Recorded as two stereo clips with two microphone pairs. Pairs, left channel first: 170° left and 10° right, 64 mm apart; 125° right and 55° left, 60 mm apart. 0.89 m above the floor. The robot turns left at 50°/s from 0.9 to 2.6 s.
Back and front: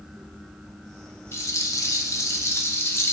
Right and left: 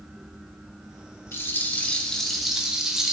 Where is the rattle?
160° right, 0.8 m; by 3.1 s 140° left, 0.8 m.